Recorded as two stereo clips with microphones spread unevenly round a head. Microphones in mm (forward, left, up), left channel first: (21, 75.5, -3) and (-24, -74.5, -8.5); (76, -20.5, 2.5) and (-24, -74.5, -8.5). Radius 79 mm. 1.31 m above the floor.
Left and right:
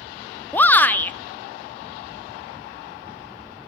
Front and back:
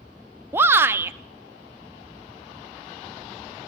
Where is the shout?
150° left, 0.6 m.